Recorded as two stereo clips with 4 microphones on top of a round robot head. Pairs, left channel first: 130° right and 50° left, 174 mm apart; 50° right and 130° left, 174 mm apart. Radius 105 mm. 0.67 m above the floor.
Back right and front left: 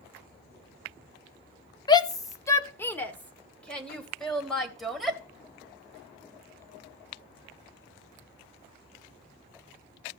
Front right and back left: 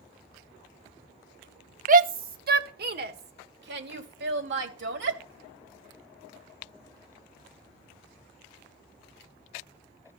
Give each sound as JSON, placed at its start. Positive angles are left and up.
{"t": 1.9, "sound": "a shout", "azimuth_deg": 165, "distance_m": 1.2}